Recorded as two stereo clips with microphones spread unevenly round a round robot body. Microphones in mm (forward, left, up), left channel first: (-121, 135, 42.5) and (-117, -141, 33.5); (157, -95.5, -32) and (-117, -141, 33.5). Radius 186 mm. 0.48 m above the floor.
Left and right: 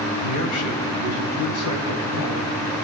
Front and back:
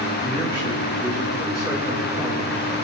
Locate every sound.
0.2 s a man speaking: 75° left, 2 m; by 2.6 s 115° left, 4.5 m